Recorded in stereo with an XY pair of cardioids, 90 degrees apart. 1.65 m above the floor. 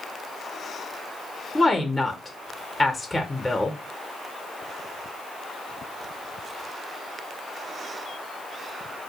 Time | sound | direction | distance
1.6 | a woman speaking | 15° left | 0.5 m